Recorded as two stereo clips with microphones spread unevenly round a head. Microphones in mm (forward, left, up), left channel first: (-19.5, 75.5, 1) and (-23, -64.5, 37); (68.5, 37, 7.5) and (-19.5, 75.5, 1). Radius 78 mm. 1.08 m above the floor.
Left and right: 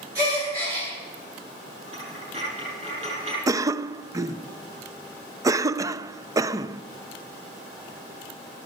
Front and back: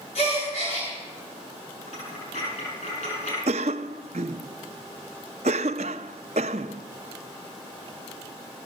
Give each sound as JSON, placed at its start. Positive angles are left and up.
{"t": 0.1, "sound": "a gasp", "azimuth_deg": -20, "distance_m": 9.5}
{"t": 1.9, "sound": "a dropped coin", "azimuth_deg": -35, "distance_m": 8.0}
{"t": 3.5, "sound": "a cough", "azimuth_deg": -160, "distance_m": 0.5}